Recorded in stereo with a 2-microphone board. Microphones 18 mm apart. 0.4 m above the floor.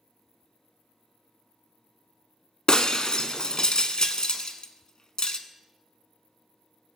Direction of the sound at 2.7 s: 45° left (ahead or behind).